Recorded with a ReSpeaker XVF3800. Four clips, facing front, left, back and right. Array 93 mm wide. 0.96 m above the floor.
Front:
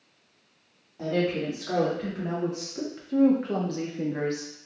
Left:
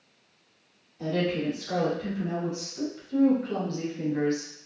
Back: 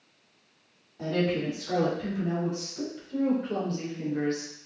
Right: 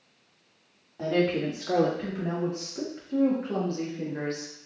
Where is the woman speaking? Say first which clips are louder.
Right 2 dB, front 1 dB; 70° right, 2.0 m; by 4.5 s 15° left, 1.5 m.